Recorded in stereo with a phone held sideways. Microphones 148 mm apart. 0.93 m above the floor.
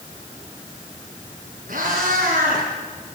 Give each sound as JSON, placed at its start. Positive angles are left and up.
{"t": 1.7, "sound": "a cat meowing", "side_deg": -65, "distance_m": 3.5}